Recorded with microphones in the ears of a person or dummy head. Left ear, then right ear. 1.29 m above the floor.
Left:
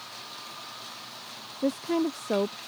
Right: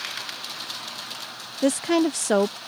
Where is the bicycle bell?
No bicycle bell in this recording.